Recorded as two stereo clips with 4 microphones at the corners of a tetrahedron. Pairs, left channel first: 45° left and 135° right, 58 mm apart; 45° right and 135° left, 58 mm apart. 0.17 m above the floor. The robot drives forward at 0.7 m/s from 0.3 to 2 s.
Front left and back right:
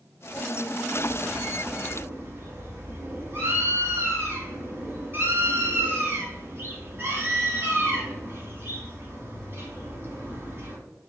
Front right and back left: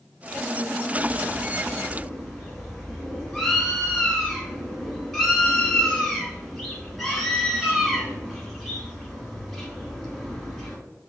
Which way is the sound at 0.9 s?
70° right.